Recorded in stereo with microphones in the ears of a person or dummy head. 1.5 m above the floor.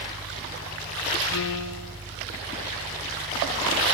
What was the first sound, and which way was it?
A piano, 65° left (ahead or behind).